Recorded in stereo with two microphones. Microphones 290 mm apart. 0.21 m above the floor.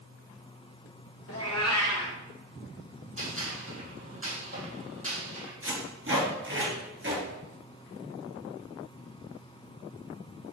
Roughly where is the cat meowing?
Left.